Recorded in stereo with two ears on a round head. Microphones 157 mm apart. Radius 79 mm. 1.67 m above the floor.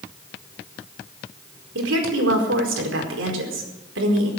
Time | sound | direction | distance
1.8 | a woman speaking | 80° right | 4.5 m